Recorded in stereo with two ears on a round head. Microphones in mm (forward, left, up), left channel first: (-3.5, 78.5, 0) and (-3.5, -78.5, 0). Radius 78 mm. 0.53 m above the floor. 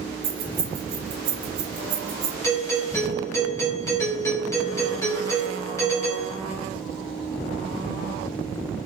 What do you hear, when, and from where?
0.2 s keys jangling: 55° right (ahead or behind), 2 m
2.4 s a doorbell: 15° left (ahead or behind), 1.2 m